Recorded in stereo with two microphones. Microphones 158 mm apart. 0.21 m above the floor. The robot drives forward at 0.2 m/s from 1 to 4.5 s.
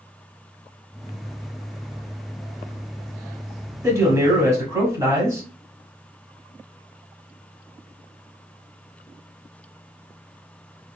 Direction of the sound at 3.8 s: 20° right (ahead or behind).